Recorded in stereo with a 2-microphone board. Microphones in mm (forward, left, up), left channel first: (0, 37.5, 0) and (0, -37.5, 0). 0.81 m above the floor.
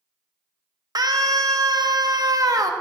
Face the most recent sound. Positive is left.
turn(degrees=-55)  # may be behind; listen again after turning